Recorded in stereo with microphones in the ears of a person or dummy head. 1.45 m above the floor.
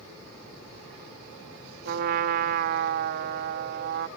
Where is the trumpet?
55° right (ahead or behind).